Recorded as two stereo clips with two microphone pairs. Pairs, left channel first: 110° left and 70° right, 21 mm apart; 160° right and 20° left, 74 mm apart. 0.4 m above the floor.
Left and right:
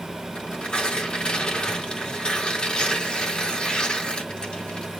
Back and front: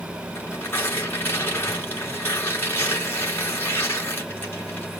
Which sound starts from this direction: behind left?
Tearing paper, at 0.3 s.